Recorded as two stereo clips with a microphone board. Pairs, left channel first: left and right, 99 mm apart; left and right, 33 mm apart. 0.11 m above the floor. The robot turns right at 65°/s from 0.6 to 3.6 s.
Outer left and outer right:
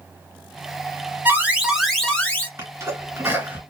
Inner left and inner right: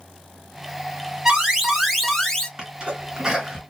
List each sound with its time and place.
1.2 s an alarm: 45° right, 1.6 m; by 2.5 s 35° left, 1.6 m
2.6 s a sneeze: 25° right (ahead or behind), 1.8 m; by 3.6 s 15° right (ahead or behind), 1.8 m